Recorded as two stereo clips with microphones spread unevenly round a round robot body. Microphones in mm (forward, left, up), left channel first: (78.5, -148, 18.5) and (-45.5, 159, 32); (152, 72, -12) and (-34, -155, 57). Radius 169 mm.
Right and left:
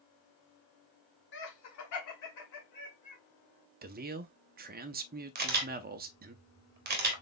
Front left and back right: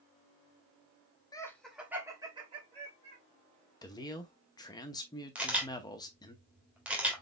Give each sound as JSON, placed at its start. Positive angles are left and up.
{"t": 1.3, "sound": "laughter", "azimuth_deg": -20, "distance_m": 1.3}
{"t": 3.8, "sound": "a man speaking", "azimuth_deg": 80, "distance_m": 0.7}
{"t": 5.3, "sound": "a camera shutter", "azimuth_deg": 125, "distance_m": 1.3}